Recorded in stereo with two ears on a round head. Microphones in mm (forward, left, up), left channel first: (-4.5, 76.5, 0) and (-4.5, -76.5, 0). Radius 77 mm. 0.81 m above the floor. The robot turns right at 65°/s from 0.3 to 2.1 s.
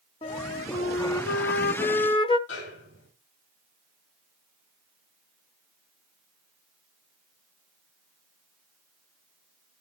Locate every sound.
0.2 s a flute: 35° left, 0.6 m; by 2.4 s 150° left, 0.6 m
2.5 s a snare drum: 80° left, 9 m